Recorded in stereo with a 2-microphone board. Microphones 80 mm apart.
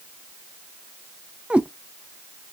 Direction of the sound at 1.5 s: 15° right (ahead or behind).